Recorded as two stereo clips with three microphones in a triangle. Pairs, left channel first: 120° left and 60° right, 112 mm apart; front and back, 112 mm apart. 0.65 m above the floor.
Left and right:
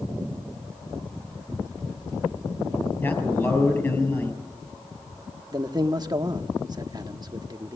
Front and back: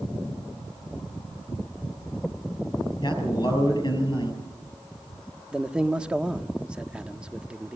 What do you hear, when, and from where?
3.0 s a man speaking: 50° left, 6 m
5.5 s a man speaking: 100° right, 1.0 m